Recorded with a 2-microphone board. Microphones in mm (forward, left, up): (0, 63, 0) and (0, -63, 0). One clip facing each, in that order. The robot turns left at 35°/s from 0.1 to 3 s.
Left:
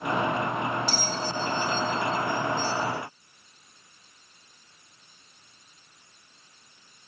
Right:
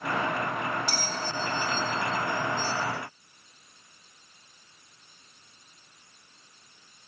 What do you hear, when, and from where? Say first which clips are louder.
0.9 s a bell: left 3 dB; 60° right (ahead or behind), 2.5 m; by 2.8 s 15° right (ahead or behind), 2.5 m